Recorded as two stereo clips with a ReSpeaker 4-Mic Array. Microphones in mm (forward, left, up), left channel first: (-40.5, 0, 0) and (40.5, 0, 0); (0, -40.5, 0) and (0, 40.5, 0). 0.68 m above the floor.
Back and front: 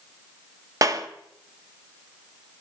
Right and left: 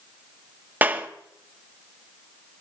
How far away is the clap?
About 0.9 m.